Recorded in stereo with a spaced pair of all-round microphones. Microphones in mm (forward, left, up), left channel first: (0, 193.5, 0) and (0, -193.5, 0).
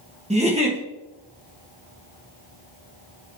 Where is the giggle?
15° right (ahead or behind), 1.8 m.